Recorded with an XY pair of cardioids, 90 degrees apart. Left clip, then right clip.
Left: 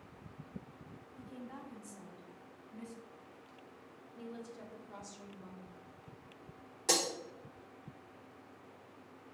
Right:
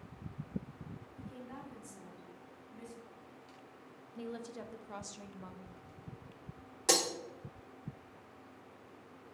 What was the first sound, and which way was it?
A woman speaking, 10° left.